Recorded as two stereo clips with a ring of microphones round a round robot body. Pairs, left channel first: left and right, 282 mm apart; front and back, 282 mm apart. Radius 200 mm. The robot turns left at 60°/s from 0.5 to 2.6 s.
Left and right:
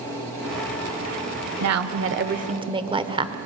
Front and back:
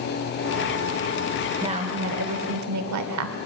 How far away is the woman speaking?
About 1.4 m.